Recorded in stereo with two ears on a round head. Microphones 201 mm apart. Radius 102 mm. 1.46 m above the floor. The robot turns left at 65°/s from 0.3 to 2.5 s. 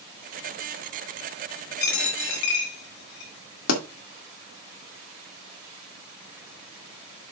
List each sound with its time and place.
1.8 s a dropped coin: 50° left (ahead or behind), 4 m; by 3.3 s 75° left (ahead or behind), 4 m
3.7 s a pop: 70° left (ahead or behind), 2.0 m